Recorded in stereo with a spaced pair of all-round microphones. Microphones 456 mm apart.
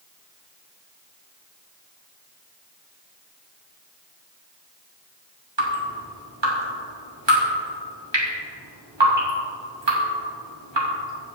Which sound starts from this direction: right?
Dripping, at 5.6 s.